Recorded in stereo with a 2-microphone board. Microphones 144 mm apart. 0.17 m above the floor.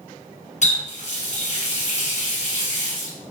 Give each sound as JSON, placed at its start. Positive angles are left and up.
{"t": 0.6, "sound": "a running tap", "side_deg": 50, "distance_m": 1.5}